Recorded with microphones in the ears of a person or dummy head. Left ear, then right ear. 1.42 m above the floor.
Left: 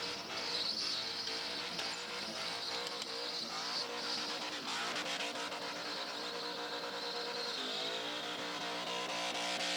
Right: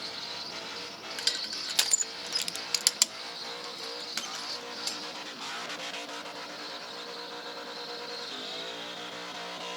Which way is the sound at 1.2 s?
70° right (ahead or behind).